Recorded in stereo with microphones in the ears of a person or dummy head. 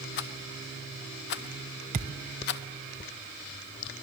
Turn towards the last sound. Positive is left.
turn(degrees=-30)  # may be behind; listen again after turning